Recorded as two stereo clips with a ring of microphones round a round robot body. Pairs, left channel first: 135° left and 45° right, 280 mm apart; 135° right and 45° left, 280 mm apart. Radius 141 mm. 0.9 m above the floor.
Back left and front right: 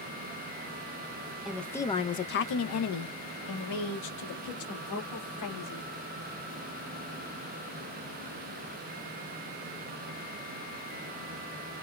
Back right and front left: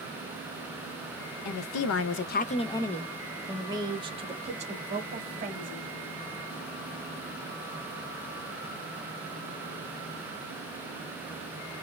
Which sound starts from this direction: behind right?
A woman speaking, at 1.4 s.